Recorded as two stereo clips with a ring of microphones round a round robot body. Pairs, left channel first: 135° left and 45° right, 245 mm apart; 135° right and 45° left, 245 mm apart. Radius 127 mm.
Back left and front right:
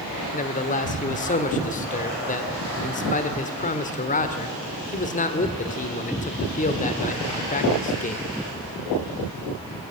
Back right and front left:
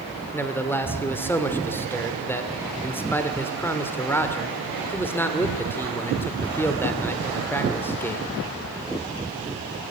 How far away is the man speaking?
About 1.3 m.